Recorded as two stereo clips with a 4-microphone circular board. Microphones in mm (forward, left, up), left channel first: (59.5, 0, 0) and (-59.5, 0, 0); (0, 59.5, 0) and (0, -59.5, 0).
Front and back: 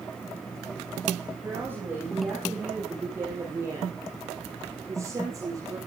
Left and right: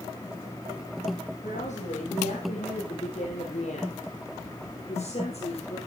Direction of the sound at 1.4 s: 105° left.